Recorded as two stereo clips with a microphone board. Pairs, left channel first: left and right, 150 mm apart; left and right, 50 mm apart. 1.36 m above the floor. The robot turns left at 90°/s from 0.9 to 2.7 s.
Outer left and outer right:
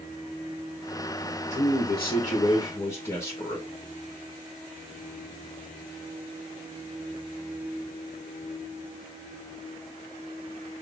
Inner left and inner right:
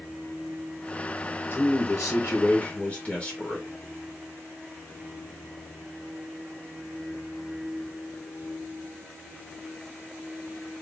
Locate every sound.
1.5 s a man speaking: 130° left, 1.2 m; by 3.7 s 25° left, 1.2 m